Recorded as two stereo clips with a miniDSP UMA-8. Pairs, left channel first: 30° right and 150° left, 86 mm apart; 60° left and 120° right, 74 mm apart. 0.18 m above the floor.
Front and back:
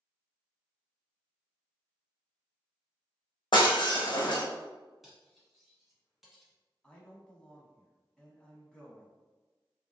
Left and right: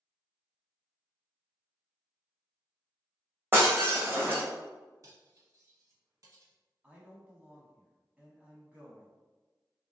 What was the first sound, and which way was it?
Breaking glass, 60° right.